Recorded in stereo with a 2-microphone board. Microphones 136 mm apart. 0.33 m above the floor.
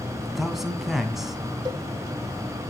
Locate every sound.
0.2 s a man speaking: centre (ahead or behind), 2.5 m
1.6 s a cowbell: 30° right (ahead or behind), 1.9 m